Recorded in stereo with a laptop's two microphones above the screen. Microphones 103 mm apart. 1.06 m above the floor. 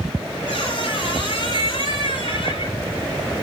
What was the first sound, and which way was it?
A squeak, 55° left (ahead or behind).